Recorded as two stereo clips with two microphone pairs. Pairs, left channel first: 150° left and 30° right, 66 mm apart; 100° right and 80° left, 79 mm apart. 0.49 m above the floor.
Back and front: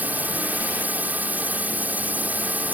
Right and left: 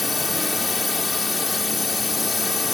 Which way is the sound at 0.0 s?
10° right.